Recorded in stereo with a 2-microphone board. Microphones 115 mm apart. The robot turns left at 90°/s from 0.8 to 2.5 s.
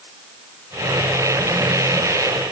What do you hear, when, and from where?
Only background noise.